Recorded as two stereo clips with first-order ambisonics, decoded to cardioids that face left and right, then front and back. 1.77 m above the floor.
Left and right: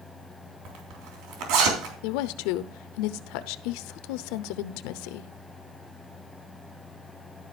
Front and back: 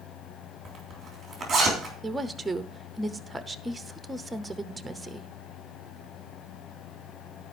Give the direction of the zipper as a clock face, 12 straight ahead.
4 o'clock.